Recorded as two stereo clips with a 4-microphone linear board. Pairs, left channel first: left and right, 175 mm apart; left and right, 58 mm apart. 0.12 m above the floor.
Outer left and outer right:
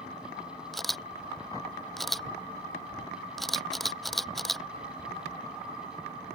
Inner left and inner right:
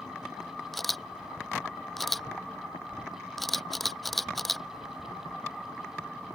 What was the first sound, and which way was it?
A camera shutter, centre (ahead or behind).